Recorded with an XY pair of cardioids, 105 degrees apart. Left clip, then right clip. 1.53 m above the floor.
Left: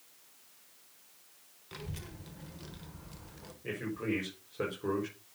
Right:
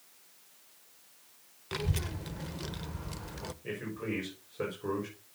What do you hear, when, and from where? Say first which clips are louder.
1.7 s a child speaking: right 9 dB; 60° right, 0.9 m
3.6 s a man speaking: left 3 dB; 20° left, 4.5 m